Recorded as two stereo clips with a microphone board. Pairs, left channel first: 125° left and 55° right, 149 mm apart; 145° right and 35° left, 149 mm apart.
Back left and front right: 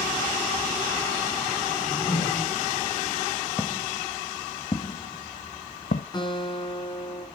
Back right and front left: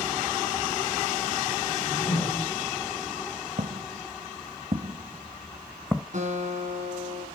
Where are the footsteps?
60° left, 2 m; by 6.0 s 130° left, 1.2 m.